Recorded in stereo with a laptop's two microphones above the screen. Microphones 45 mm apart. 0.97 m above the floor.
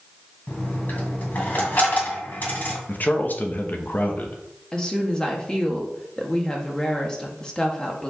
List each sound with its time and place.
0.5 s a dropped coin: 45° left (ahead or behind), 2.5 m
2.9 s a man speaking: 40° left (ahead or behind), 1.1 m
4.7 s a woman speaking: 20° left (ahead or behind), 1.6 m